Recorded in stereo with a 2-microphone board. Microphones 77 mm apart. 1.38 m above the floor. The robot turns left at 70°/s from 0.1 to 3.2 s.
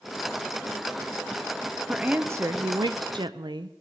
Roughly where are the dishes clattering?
No dishes clattering in this recording.